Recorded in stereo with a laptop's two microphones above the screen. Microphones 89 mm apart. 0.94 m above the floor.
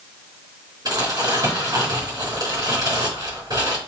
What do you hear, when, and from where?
0.8 s crumpling: 45° right (ahead or behind), 4 m